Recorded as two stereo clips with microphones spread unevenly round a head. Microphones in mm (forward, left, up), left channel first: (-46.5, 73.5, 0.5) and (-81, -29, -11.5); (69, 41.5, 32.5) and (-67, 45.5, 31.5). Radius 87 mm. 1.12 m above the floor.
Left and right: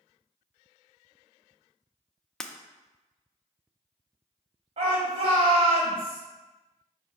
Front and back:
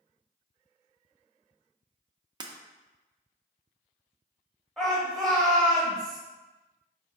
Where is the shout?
90° right, 1.3 m.